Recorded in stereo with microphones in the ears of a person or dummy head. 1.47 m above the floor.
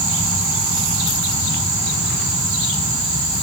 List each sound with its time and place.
Only background noise.